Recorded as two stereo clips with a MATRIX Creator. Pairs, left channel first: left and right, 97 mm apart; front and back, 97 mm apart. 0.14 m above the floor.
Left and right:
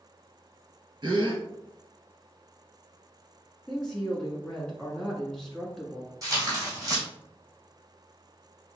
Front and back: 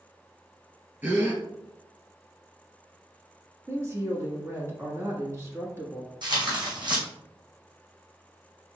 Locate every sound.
1.0 s a gasp: 115° right, 1.4 m
3.7 s a woman speaking: 170° left, 1.6 m
6.2 s tearing paper: 140° right, 2.5 m